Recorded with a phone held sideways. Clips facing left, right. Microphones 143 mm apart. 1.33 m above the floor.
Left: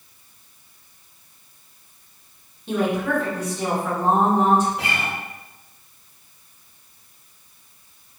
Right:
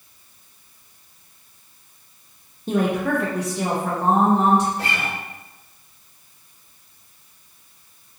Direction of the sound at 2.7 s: 40° right (ahead or behind).